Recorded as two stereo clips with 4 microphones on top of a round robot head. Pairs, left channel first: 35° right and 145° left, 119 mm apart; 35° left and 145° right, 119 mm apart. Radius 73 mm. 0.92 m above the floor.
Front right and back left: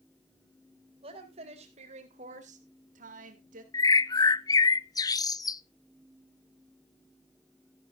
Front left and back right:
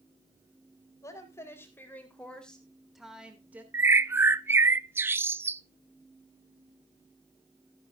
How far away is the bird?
About 0.7 m.